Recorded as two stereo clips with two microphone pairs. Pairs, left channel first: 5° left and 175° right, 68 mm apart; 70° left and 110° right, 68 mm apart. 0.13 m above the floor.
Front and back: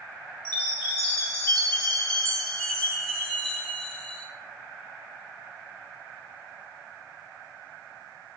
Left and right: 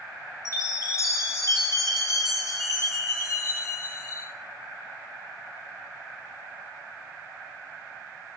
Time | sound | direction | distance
0.5 | a chime | 75° left | 1.4 m